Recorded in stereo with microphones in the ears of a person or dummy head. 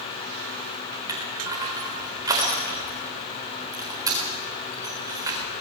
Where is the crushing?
20° right (ahead or behind), 4 m.